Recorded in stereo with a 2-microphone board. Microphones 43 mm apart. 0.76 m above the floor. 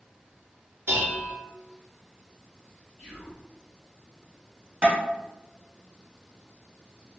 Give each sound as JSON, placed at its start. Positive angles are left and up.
{"t": 0.9, "sound": "dishes clattering", "side_deg": -75, "distance_m": 0.8}
{"t": 3.0, "sound": "whispering", "side_deg": -20, "distance_m": 1.4}
{"t": 4.8, "sound": "tapping", "side_deg": -30, "distance_m": 1.4}